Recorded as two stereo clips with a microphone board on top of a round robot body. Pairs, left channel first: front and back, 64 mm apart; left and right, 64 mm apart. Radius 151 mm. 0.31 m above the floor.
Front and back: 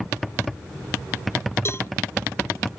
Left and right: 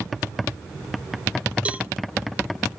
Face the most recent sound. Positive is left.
turn(degrees=-25)